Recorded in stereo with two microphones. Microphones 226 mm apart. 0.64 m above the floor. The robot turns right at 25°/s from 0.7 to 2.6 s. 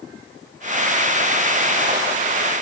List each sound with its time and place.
Only background noise.